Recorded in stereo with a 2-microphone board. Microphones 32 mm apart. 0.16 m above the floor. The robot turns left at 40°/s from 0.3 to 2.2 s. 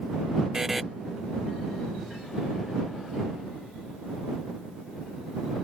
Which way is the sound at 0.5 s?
15° right (ahead or behind).